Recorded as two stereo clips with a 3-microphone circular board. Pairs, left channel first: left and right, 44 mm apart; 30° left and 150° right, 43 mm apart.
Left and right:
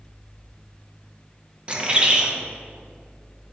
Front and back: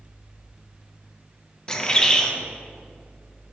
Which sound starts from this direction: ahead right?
A bird, at 1.7 s.